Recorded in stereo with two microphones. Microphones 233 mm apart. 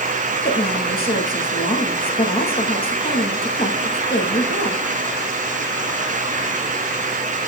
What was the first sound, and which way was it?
A woman speaking, 40° left (ahead or behind).